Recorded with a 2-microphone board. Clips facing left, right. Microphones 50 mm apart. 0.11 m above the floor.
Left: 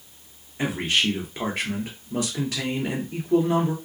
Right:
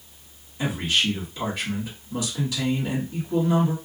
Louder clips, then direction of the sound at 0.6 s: Left 1 dB; 50° left (ahead or behind).